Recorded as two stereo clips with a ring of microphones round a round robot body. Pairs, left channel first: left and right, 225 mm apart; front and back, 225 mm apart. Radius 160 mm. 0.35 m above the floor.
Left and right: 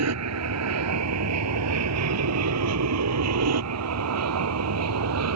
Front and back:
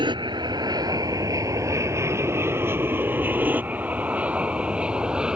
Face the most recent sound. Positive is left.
turn(degrees=-95)